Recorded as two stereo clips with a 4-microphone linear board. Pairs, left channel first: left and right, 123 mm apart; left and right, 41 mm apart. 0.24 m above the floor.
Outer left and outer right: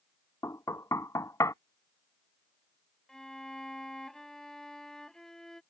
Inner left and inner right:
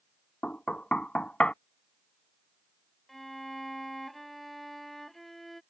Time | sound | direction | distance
0.4 | knocking | 25° left (ahead or behind) | ?
3.1 | a violin | 5° left (ahead or behind) | ?